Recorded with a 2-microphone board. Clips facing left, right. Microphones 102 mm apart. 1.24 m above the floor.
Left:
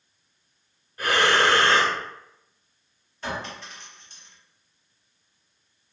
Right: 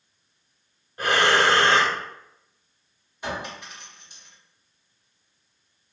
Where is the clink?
15° right (ahead or behind), 1.4 m.